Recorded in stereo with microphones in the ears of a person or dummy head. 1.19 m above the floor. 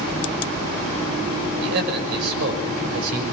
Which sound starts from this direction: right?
A man speaking, at 1.6 s.